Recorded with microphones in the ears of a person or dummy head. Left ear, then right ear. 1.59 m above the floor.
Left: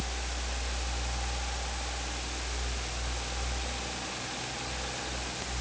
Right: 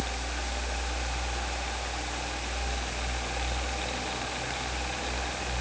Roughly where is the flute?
I don't hear a flute.